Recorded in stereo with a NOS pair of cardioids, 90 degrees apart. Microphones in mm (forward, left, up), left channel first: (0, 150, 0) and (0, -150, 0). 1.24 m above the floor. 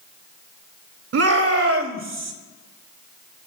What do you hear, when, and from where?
1.1 s a shout: 55° right, 2.5 m; by 2.3 s 40° right, 3 m